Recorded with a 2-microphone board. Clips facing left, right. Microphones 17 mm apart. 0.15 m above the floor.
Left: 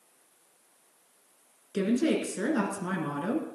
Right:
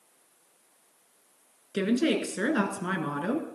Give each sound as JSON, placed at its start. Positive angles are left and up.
{"t": 1.7, "sound": "a woman speaking", "side_deg": -50, "distance_m": 2.0}